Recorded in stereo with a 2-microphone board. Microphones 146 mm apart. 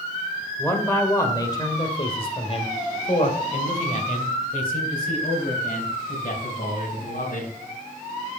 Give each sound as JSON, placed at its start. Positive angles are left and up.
{"t": 0.6, "sound": "a man speaking", "side_deg": 15, "distance_m": 2.0}